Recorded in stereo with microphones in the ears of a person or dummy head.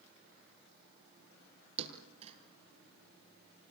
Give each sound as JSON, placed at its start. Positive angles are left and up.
{"t": 1.8, "sound": "a thud", "side_deg": -40, "distance_m": 5.0}